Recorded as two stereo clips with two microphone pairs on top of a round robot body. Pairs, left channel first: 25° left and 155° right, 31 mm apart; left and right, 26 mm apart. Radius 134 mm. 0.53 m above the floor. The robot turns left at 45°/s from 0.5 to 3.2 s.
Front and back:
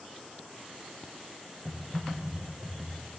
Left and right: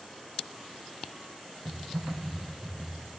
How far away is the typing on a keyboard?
About 9 m.